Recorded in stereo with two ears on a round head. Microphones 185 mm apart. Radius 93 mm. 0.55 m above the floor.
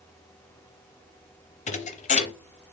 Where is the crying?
I don't hear crying.